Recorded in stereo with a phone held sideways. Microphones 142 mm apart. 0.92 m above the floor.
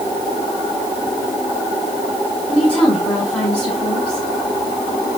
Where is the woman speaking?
5° left (ahead or behind), 6.5 m.